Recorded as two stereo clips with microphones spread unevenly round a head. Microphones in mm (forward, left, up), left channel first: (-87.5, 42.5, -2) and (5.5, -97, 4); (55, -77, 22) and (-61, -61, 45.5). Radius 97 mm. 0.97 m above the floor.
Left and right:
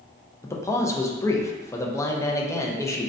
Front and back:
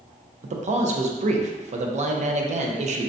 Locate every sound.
0.4 s a man speaking: 165° right, 0.6 m